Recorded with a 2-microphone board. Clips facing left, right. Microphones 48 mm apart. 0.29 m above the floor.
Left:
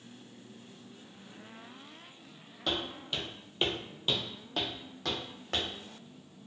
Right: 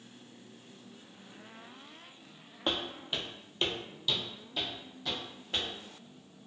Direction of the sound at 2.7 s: 30° right (ahead or behind).